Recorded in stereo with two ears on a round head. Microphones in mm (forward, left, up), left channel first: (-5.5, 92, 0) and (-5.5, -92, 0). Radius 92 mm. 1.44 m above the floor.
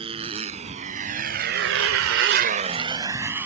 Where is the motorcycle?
30° right (ahead or behind); by 3.5 s 10° right (ahead or behind).